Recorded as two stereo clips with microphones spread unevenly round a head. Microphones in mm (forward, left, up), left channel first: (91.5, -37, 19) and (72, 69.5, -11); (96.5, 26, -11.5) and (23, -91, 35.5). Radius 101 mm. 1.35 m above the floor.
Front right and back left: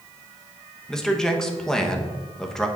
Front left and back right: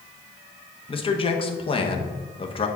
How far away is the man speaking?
About 1.1 m.